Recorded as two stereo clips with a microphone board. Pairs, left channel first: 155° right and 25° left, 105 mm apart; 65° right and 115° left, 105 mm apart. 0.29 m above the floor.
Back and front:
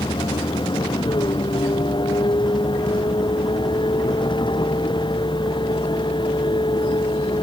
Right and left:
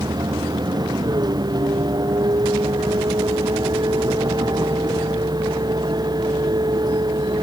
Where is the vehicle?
160° left.